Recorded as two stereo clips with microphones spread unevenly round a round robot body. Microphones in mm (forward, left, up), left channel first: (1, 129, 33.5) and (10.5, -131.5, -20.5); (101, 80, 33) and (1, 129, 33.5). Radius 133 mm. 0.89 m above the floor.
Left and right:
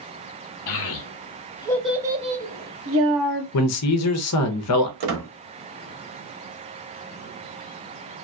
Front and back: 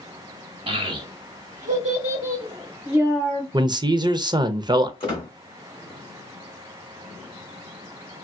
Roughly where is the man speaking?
Left.